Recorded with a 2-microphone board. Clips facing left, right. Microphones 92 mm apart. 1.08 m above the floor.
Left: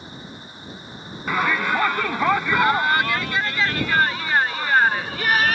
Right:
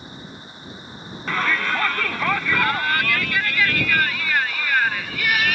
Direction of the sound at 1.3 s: 15° left (ahead or behind).